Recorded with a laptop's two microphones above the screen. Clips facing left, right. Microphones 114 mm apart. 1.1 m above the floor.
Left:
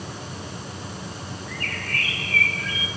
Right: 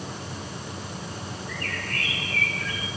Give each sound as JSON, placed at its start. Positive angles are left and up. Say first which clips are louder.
{"t": 1.5, "sound": "a bird", "louder": "left 2 dB", "side_deg": 80, "distance_m": 8.5}